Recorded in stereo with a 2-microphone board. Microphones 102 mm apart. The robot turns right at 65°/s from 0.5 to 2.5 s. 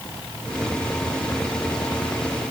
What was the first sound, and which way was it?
Only background noise.